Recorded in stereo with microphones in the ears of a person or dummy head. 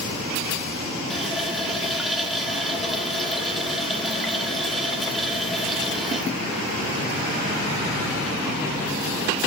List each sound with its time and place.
1.1 s a running tap: 5° right (ahead or behind), 1.6 m